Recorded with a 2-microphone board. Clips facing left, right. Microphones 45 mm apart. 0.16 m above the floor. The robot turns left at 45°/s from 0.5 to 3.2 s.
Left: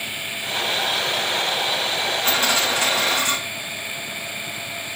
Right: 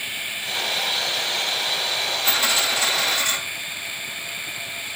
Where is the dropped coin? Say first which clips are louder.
Left 1 dB; 130° left, 5.5 m; by 3.4 s 90° left, 5.5 m.